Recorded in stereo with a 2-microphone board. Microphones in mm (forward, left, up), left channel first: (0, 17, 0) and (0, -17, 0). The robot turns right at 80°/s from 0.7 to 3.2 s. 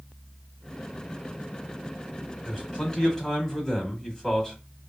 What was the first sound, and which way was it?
A man speaking, 15° left (ahead or behind).